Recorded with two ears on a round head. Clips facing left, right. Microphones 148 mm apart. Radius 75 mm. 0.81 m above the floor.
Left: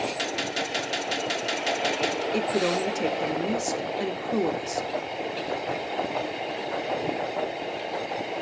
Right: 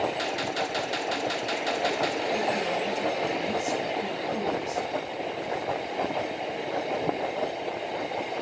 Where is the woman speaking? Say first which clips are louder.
Left 2 dB; 60° left (ahead or behind), 0.7 m.